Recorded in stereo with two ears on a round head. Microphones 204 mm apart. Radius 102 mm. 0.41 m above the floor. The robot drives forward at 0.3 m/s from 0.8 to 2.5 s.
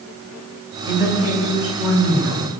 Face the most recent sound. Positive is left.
turn(degrees=-10)  # may be behind; listen again after turning